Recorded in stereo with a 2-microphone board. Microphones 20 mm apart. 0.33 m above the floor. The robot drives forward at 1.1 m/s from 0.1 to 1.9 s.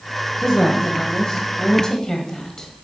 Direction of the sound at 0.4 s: 25° left (ahead or behind).